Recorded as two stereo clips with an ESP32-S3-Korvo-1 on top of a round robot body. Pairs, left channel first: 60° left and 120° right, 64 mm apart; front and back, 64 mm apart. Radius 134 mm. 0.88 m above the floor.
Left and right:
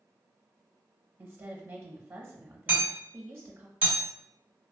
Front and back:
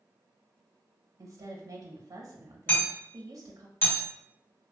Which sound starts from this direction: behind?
A woman speaking, at 1.2 s.